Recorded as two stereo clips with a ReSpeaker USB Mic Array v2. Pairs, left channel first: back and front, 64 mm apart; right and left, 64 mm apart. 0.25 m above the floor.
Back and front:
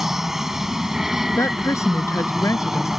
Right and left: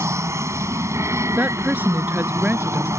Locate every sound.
0.0 s an aircraft: 85° left
1.4 s a woman speaking: 150° left